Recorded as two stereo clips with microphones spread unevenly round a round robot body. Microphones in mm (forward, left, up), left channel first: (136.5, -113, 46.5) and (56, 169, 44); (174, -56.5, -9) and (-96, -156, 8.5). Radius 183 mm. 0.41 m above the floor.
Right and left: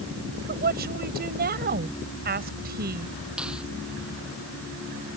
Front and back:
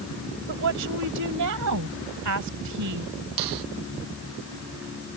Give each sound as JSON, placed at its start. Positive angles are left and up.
{"t": 0.5, "sound": "a woman speaking", "azimuth_deg": 165}
{"t": 3.4, "sound": "a finger snap", "azimuth_deg": -165}